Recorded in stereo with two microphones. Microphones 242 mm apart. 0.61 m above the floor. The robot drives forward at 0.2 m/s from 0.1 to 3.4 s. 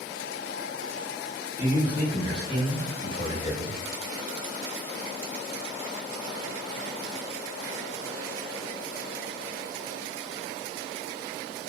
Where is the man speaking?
20° left (ahead or behind), 1.3 m.